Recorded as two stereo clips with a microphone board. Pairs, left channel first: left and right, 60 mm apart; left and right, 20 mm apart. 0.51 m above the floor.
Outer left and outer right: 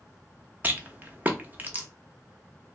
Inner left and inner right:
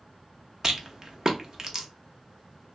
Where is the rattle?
30° right (ahead or behind), 0.7 m.